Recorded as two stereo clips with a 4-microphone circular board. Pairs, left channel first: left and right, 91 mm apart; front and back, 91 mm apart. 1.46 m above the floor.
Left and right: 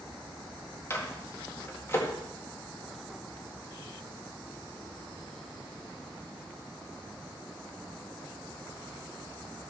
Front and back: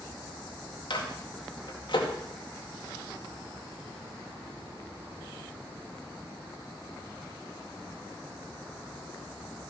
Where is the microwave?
25° left, 2 m.